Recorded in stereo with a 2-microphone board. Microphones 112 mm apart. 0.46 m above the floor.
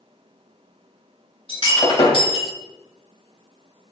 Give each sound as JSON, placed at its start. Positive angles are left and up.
{"t": 1.5, "sound": "breaking glass", "side_deg": 50, "distance_m": 1.0}